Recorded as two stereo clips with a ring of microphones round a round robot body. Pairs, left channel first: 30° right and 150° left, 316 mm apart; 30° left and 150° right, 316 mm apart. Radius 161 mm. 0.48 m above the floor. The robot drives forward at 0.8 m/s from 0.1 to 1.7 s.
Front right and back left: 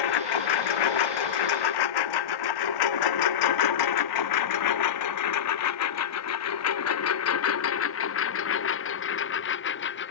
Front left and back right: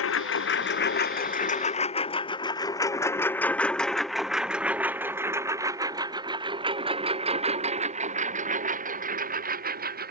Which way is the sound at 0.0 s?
20° right.